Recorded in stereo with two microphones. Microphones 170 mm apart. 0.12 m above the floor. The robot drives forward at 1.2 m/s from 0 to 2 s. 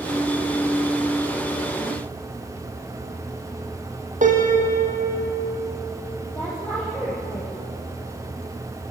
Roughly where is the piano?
Right.